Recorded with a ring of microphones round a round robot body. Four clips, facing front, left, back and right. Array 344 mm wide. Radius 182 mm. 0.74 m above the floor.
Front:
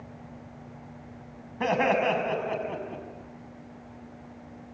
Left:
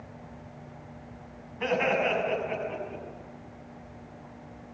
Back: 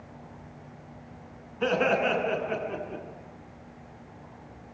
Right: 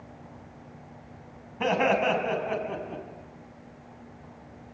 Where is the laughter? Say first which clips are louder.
Right 3 dB, front 1 dB; 35° right, 6.5 m; by 3.0 s 45° right, 7.5 m.